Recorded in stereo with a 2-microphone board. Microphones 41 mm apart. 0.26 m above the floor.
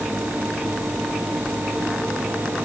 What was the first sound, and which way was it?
Only background noise.